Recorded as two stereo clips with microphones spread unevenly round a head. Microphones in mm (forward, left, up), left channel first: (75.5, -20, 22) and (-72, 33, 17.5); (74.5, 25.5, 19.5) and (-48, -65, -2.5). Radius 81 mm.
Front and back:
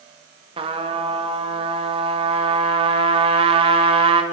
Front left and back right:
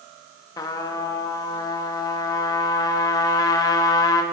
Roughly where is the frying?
I don't hear frying.